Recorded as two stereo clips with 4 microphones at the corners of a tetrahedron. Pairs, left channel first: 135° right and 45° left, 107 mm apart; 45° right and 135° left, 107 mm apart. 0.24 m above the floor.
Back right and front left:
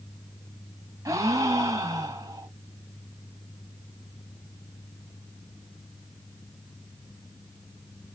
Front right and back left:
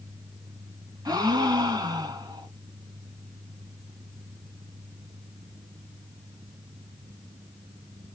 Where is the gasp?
95° left, 1.3 m.